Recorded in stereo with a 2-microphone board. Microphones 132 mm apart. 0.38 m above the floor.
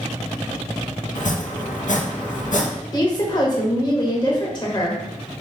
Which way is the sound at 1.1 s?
70° left (ahead or behind).